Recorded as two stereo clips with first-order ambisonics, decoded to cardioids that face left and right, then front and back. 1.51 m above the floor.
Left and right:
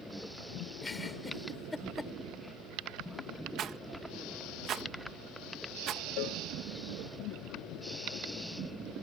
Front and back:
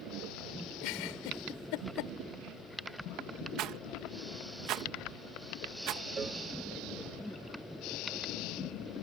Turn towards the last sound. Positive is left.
turn(degrees=110)